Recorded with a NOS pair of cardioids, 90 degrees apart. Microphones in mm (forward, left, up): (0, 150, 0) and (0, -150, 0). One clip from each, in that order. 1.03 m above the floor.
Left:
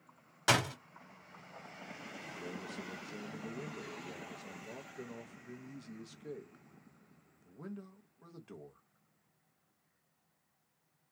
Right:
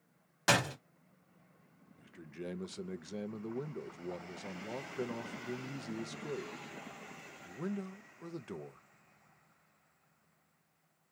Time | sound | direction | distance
0.5 | a door slam | straight ahead | 1.2 m
2.0 | a man speaking | 30° right | 0.5 m